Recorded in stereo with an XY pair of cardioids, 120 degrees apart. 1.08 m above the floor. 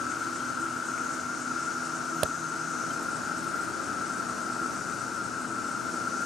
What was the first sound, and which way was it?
An insect, 40° left.